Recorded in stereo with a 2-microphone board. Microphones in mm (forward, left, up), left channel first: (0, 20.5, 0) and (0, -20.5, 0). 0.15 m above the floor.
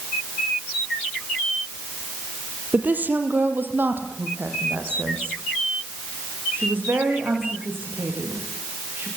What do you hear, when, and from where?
2.7 s a woman speaking: 45° right (ahead or behind), 3.5 m; by 9.1 s 65° right (ahead or behind), 12 m